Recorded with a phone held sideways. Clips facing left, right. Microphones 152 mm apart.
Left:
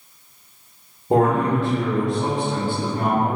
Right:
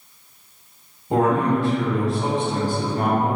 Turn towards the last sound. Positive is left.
turn(degrees=-65)  # may be behind; listen again after turning